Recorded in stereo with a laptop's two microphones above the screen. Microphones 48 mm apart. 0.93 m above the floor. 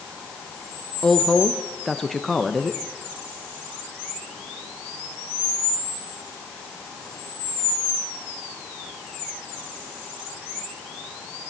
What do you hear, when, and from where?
1.0 s a woman speaking: 10° left (ahead or behind), 0.7 m